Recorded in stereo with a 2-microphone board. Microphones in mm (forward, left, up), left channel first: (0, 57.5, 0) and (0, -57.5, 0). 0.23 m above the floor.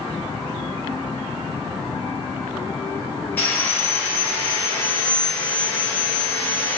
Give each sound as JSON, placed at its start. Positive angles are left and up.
{"t": 3.4, "sound": "sawing", "side_deg": 15, "distance_m": 0.7}